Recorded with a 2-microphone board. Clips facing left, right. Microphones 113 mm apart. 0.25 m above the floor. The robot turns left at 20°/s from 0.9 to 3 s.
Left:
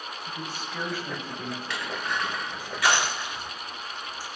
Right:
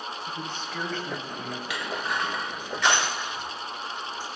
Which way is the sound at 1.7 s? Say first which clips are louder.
Right 2 dB; 10° right (ahead or behind).